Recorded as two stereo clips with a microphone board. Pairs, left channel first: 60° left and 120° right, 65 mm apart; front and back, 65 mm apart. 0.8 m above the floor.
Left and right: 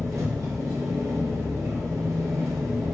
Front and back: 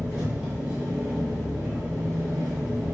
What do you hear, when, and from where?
0.0 s an engine running: 110° right, 1.6 m